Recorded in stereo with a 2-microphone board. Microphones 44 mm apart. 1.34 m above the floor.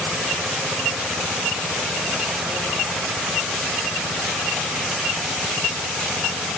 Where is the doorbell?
No doorbell in this recording.